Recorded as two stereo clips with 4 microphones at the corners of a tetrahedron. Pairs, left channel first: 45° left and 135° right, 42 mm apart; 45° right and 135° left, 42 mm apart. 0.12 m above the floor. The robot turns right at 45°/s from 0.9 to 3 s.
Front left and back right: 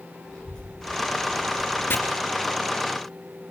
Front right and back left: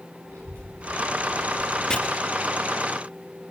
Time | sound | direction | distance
0.3 | a child speaking | 120° left | 8.5 m
1.9 | chopping | 25° left | 2.5 m